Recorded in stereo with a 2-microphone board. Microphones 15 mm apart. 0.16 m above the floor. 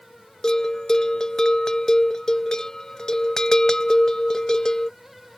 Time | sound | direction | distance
0.4 | a bell | 45° left (ahead or behind) | ?